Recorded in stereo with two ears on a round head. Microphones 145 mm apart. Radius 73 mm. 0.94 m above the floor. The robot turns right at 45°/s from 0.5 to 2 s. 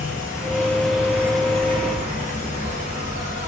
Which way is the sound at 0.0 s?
160° left.